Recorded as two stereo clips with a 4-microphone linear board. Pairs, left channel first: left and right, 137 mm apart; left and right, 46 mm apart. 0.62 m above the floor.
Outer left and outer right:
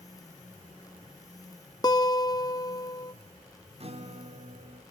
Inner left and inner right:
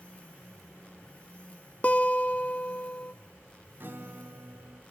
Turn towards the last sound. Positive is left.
turn(degrees=-45)  # may be behind; listen again after turning